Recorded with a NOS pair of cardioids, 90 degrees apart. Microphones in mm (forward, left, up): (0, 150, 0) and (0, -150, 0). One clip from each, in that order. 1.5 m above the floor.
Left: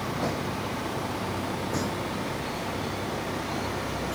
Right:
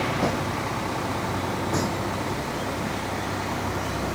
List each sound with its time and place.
0.0 s a vehicle: 30° right; by 4.2 s 25° right